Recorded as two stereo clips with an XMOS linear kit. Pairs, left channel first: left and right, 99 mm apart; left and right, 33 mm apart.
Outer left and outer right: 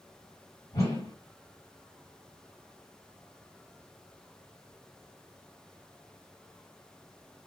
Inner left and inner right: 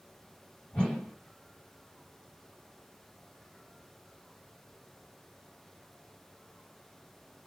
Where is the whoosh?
35° left (ahead or behind), 1.7 m.